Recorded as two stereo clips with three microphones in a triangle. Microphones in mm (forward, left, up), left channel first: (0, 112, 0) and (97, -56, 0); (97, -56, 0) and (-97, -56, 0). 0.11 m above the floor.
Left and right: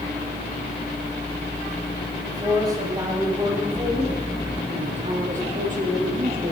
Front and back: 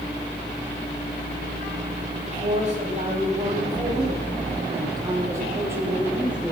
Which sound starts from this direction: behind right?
A man speaking, at 2.3 s.